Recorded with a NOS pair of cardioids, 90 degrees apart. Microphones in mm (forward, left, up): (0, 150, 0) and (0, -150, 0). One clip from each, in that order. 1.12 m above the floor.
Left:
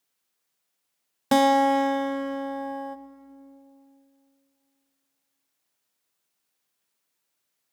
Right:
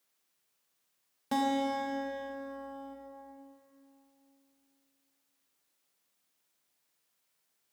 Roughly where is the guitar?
Ahead left.